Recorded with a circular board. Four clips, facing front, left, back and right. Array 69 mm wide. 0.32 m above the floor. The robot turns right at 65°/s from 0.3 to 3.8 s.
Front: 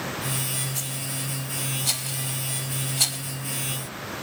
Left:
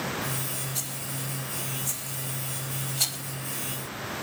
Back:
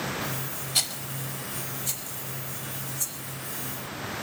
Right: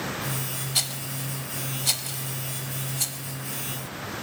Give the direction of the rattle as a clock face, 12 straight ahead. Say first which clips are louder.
Right 2 dB, front 1 dB; 4 o'clock.